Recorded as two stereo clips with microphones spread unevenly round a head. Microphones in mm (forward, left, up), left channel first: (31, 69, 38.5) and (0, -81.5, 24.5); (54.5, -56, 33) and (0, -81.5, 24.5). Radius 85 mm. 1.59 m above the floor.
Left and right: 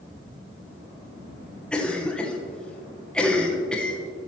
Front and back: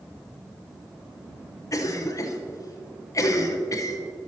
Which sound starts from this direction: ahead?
A cough, at 1.7 s.